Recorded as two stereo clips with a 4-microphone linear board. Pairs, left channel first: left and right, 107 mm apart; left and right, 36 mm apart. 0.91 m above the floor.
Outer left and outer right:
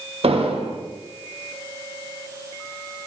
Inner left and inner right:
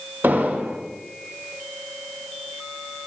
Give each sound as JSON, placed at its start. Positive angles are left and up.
{"t": 0.2, "sound": "an explosion", "side_deg": -70, "distance_m": 0.9}